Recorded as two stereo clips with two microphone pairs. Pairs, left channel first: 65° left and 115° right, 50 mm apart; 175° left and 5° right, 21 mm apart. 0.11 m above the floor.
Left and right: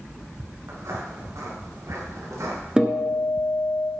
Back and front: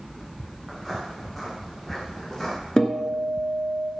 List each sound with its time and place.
0.7 s footsteps: 95° right, 7 m; by 2.6 s 105° right, 8.5 m
2.8 s a guitar: 175° right, 1.9 m